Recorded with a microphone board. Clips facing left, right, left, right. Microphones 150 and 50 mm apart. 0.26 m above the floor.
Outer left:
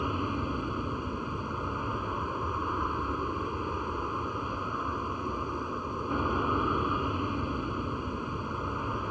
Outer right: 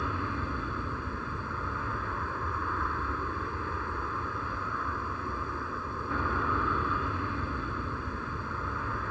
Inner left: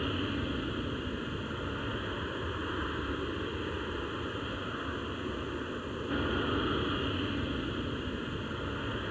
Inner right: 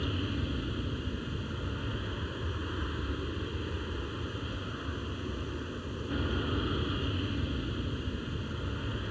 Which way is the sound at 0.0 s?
15° left (ahead or behind).